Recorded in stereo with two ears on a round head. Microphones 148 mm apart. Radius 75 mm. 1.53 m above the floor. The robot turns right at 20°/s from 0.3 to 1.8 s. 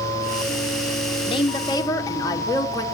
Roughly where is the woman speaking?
Left.